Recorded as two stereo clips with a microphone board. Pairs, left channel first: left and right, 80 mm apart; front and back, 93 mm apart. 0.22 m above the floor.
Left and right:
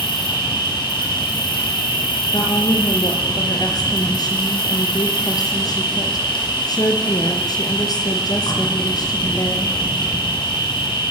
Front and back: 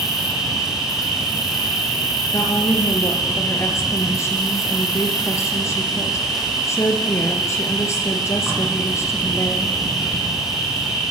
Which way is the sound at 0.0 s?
95° left.